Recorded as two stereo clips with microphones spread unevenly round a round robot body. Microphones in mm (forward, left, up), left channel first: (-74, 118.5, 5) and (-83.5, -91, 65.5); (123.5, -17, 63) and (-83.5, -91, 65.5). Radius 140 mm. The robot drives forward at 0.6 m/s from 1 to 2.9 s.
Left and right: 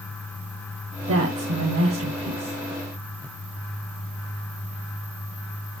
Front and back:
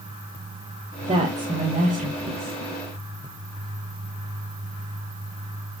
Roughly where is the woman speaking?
Right.